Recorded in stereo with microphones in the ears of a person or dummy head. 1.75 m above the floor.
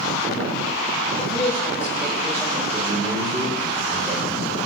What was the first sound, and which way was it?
A man speaking, 15° left (ahead or behind).